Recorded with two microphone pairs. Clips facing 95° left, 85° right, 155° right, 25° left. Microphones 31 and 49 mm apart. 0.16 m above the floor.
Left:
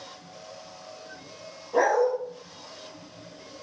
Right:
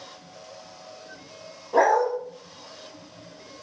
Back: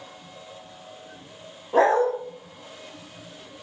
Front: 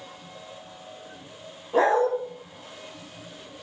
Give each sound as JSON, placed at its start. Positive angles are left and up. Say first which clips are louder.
{"t": 1.7, "sound": "a dog barking", "louder": "right 2 dB, back 2 dB", "azimuth_deg": -120, "distance_m": 3.0}